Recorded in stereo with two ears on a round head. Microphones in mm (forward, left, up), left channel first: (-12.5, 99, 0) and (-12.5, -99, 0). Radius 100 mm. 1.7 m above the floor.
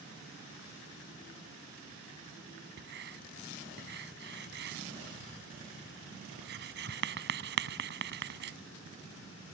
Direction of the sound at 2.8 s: 50° right (ahead or behind).